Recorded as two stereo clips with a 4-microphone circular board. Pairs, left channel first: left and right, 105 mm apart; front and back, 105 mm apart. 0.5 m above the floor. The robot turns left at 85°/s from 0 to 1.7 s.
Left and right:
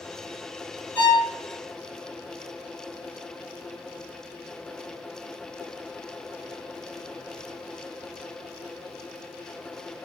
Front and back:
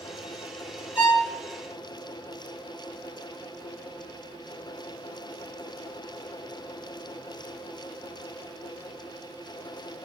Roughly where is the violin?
Behind left.